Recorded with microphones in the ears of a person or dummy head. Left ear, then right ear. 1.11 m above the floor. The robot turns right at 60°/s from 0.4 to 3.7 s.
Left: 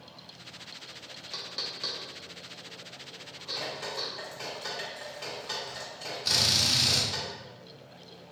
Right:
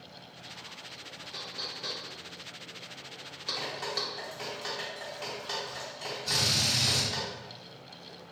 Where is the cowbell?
No cowbell in this recording.